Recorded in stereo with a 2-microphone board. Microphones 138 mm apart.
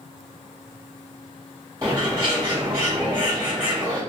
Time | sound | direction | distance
1.8 | a bird | 20° right (ahead or behind) | 1.6 m